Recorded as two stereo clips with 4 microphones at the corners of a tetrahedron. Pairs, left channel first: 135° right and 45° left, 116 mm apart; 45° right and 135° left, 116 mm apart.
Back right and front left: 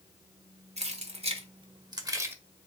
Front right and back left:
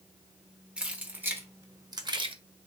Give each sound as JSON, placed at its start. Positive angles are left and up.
{"t": 0.8, "sound": "keys jangling", "azimuth_deg": 55, "distance_m": 1.1}